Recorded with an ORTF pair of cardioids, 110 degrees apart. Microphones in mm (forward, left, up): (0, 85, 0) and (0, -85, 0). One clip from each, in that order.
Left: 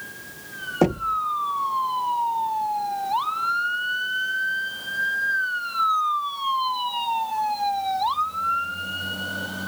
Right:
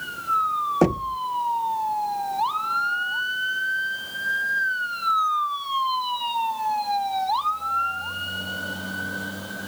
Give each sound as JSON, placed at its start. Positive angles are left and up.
{"t": 0.8, "sound": "knocking", "azimuth_deg": -25}